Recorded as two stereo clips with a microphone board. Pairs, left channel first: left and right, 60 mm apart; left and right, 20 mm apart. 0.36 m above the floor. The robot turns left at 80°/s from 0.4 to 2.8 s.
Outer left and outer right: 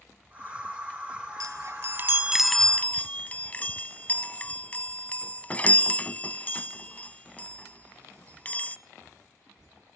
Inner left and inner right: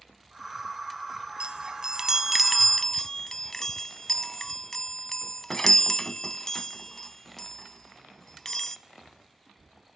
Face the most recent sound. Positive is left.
turn(degrees=25)  # may be behind; listen again after turning